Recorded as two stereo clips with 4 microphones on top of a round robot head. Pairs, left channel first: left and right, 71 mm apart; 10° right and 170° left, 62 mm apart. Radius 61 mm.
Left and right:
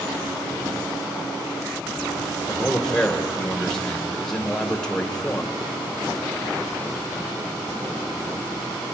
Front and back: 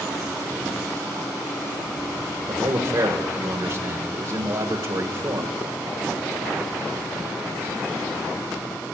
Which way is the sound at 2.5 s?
170° left.